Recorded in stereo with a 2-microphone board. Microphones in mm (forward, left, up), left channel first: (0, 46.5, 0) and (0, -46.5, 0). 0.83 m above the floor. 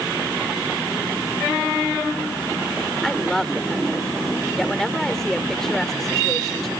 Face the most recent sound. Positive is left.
turn(degrees=5)  # may be behind; listen again after turning